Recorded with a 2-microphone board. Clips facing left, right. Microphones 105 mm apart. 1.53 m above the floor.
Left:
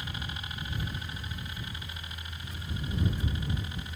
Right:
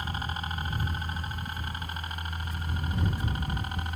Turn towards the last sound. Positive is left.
turn(degrees=-55)  # may be behind; listen again after turning